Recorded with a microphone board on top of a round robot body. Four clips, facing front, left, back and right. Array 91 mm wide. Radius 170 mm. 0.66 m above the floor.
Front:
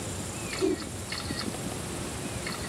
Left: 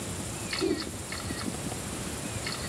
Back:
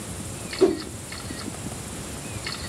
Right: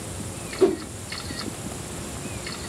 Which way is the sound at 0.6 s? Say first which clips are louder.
Right 9 dB, back 8 dB; 135° right.